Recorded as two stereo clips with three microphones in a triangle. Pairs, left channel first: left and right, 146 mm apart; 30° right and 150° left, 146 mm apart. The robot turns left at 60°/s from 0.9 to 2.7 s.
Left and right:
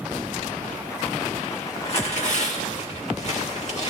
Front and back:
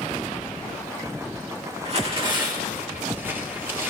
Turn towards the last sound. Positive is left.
turn(degrees=80)